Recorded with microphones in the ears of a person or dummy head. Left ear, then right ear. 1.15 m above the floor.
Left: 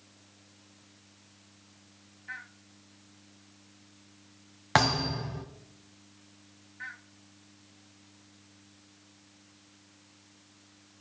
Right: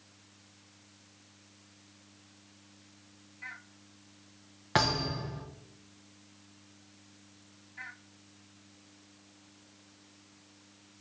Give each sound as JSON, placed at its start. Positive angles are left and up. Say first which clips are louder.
{"t": 4.8, "sound": "a thud", "louder": "left 3 dB", "side_deg": 30, "distance_m": 2.5}